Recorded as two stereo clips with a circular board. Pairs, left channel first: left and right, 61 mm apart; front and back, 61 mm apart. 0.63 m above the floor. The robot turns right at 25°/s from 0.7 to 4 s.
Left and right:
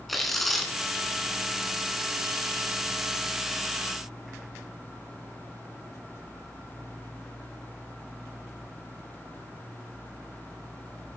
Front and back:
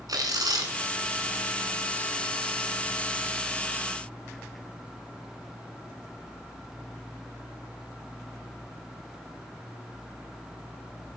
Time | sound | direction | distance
0.1 | tearing paper | straight behind | 2.5 m